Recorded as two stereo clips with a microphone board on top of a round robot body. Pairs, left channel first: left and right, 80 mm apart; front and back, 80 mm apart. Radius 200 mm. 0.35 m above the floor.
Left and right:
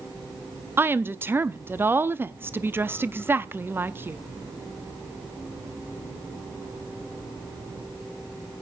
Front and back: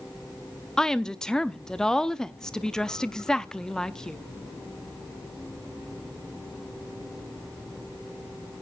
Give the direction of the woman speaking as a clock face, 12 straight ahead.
2 o'clock.